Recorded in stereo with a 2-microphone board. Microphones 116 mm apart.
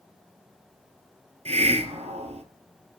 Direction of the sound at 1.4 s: 70° right (ahead or behind).